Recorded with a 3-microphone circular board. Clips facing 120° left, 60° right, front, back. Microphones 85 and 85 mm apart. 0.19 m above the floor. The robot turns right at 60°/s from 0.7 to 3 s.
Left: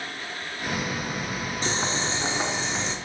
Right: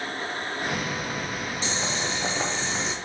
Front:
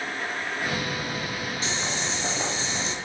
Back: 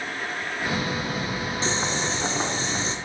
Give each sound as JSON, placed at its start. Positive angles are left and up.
{"t": 1.6, "sound": "boiling", "azimuth_deg": 135, "distance_m": 1.2}